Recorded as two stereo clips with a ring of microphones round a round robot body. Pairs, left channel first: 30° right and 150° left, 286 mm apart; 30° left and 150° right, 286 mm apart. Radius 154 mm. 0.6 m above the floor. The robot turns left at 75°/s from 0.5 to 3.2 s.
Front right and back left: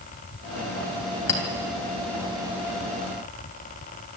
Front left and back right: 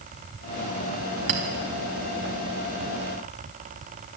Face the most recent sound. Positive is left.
turn(degrees=105)